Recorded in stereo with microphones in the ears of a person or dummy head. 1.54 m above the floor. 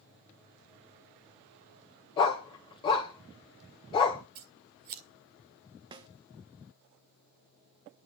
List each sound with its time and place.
2.2 s a dog barking: 30° left (ahead or behind), 1.4 m
4.3 s scissors: 35° right (ahead or behind), 1.5 m
5.9 s a snare drum: 20° right (ahead or behind), 1.0 m